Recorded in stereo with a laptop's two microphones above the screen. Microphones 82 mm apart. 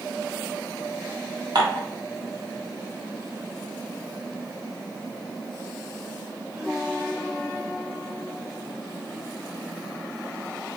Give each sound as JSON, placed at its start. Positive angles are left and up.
{"t": 1.6, "sound": "dishes clattering", "side_deg": -65, "distance_m": 1.4}